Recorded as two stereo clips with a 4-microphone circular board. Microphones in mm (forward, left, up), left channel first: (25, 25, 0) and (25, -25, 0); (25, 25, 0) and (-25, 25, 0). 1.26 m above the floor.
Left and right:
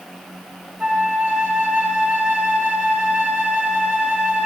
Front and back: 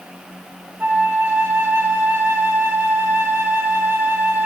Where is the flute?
140° right, 0.9 m.